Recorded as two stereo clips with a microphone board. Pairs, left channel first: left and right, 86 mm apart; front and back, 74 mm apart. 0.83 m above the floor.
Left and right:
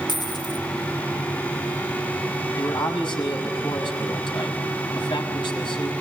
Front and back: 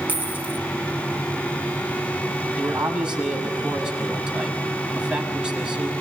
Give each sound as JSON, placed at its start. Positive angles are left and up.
{"t": 0.1, "sound": "a dropped coin", "azimuth_deg": 115, "distance_m": 2.5}
{"t": 2.6, "sound": "a man speaking", "azimuth_deg": 105, "distance_m": 6.0}